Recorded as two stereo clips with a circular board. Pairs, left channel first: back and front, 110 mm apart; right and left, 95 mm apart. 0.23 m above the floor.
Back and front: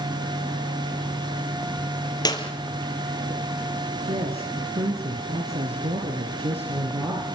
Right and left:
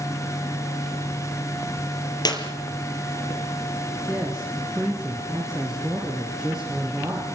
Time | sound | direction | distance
2.2 | a clap | 130° right | 4 m
4.1 | a woman speaking | 5° left | 5 m